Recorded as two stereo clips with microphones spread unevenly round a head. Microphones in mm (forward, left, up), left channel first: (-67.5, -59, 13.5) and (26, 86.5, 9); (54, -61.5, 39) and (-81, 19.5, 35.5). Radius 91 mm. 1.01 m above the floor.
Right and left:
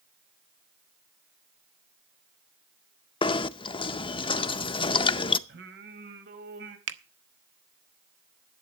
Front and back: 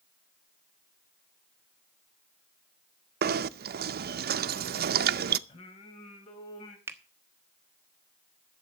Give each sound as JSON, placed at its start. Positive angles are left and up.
{"t": 3.2, "sound": "knocking", "azimuth_deg": 175, "distance_m": 0.6}
{"t": 5.5, "sound": "singing", "azimuth_deg": 25, "distance_m": 1.7}
{"t": 6.9, "sound": "a finger snap", "azimuth_deg": 70, "distance_m": 1.0}